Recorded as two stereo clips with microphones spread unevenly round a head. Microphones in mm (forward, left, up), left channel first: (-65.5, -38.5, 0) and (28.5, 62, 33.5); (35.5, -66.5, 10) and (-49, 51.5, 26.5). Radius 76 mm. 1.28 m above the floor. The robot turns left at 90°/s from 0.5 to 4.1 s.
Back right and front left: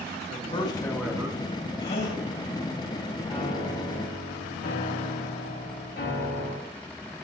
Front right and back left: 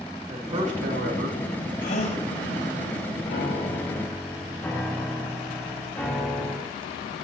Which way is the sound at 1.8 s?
75° right.